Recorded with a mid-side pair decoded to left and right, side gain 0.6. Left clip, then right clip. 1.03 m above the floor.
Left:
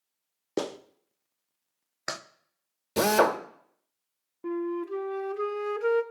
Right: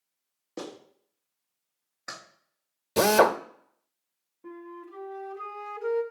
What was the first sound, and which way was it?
A clap, 50° left.